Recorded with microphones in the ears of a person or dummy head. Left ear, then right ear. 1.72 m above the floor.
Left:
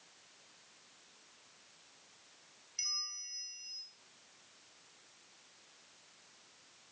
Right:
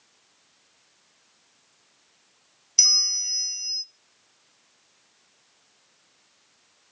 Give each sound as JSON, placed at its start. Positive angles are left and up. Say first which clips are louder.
{"t": 2.8, "sound": "a bell", "louder": "right 19 dB", "side_deg": -45, "distance_m": 0.6}